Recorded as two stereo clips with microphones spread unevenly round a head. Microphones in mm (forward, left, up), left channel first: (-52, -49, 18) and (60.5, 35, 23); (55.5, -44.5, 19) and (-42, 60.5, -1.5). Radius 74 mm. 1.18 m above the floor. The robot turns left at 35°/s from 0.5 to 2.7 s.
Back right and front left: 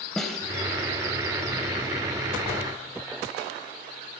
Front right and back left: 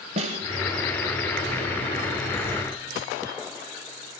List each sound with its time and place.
0.2 s a snare drum: 130° left, 1.1 m